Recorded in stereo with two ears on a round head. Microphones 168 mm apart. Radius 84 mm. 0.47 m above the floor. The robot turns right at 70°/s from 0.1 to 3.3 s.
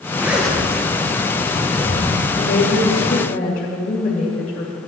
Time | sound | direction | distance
0.2 | a zipper | 15° right | 1.6 m
2.4 | a woman speaking | 70° left | 1.9 m